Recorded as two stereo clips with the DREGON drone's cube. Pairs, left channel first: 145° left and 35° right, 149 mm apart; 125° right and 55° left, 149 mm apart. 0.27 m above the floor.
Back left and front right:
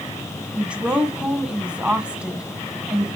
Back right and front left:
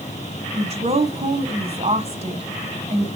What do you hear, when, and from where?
0.6 s a woman speaking: 45° left, 1.3 m